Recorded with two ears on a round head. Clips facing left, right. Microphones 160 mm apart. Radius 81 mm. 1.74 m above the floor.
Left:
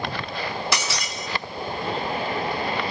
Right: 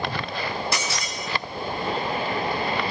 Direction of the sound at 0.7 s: 60° left (ahead or behind).